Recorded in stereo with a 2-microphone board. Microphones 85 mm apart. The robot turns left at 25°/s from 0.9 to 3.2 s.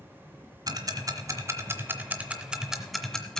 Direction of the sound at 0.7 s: 50° right (ahead or behind).